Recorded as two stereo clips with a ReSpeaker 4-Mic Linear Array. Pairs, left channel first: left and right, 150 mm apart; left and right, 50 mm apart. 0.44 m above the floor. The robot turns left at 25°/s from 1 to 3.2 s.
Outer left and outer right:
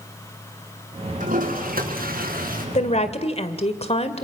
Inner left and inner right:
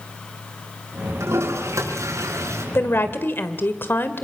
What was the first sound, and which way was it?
A toilet flushing, 65° right.